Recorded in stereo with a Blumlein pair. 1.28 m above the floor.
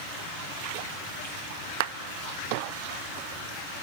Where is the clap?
50° right, 0.8 m.